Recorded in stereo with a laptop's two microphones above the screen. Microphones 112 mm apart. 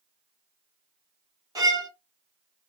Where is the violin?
30° right (ahead or behind), 1.3 m.